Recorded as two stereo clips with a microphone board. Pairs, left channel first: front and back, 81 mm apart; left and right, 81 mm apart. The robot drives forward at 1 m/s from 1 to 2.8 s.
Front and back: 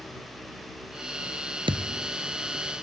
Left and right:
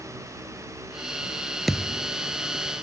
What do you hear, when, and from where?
1.7 s a thud: straight behind